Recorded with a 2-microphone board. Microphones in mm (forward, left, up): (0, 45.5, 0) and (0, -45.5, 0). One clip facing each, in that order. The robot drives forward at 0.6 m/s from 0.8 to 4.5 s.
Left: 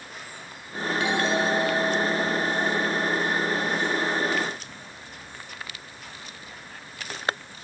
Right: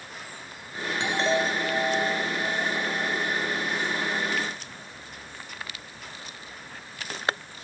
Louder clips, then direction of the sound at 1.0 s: Even; 25° right (ahead or behind).